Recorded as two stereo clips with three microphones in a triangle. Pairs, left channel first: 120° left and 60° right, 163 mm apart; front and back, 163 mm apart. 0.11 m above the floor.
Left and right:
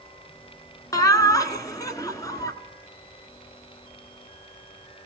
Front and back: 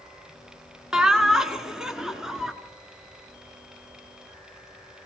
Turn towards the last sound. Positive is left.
turn(degrees=100)